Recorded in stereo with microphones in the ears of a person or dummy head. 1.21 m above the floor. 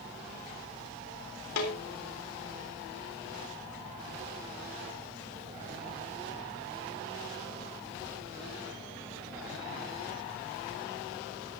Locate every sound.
1.6 s a snare drum: 75° left (ahead or behind), 3 m